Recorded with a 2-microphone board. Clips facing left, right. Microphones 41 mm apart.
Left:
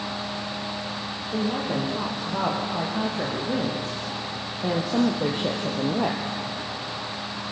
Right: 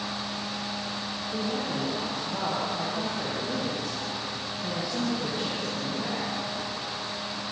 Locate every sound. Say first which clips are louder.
1.3 s a woman speaking: left 5 dB; 15° left (ahead or behind), 6 m; by 6.4 s 65° left (ahead or behind), 3 m